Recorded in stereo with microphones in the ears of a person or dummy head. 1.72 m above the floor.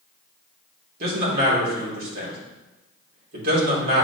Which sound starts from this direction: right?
A man speaking, at 1.0 s.